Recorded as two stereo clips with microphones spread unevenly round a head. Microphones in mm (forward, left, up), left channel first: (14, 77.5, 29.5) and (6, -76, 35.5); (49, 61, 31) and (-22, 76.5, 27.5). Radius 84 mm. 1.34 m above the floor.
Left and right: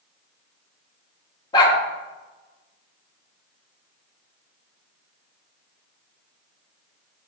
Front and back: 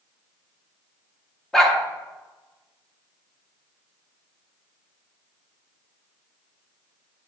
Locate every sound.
1.5 s a dog barking: 55° left, 0.9 m